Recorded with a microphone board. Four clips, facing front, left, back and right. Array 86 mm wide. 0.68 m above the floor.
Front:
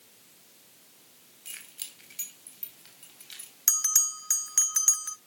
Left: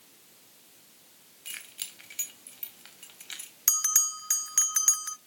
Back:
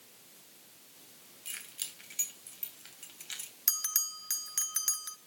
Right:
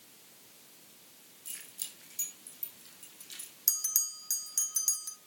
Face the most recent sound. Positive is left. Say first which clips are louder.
# left 14 dB, front 6 dB
turn(degrees=75)